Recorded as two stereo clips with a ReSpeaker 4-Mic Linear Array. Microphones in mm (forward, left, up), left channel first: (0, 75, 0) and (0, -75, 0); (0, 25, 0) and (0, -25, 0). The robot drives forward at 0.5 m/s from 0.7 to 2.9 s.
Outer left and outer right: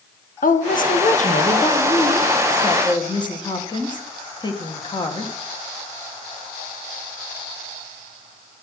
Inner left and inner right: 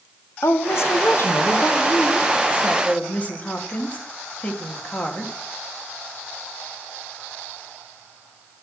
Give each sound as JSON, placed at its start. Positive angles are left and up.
{"t": 0.4, "sound": "a woman speaking", "side_deg": 65, "distance_m": 0.9}